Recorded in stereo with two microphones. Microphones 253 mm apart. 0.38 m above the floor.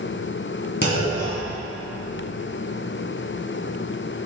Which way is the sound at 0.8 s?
45° left (ahead or behind).